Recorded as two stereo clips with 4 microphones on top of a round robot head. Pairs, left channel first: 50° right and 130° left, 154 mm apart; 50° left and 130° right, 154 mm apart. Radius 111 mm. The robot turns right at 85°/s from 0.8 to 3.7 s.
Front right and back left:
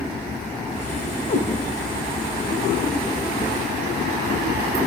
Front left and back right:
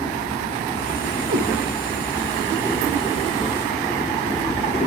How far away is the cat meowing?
About 6.5 m.